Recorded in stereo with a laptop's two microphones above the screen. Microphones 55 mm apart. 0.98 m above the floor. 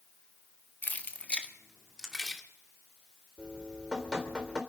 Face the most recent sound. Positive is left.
turn(degrees=-15)  # may be behind; listen again after turning